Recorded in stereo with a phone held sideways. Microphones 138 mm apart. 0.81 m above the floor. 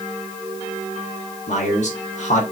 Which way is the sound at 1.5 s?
60° left (ahead or behind).